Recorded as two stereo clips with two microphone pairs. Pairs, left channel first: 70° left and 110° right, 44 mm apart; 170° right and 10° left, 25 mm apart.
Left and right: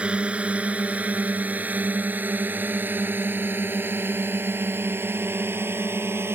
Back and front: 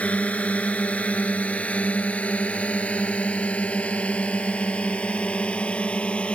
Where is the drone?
175° right; by 6.4 s 135° right.